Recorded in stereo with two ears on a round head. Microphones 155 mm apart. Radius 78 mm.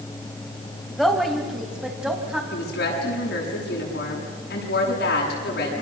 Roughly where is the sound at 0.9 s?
Centre.